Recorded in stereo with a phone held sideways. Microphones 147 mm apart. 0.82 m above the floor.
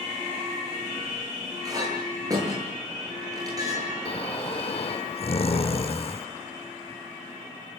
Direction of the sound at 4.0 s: 45° left (ahead or behind).